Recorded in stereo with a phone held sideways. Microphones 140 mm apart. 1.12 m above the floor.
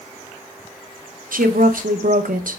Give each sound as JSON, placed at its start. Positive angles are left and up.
{"t": 1.3, "sound": "a woman speaking", "side_deg": -80, "distance_m": 0.5}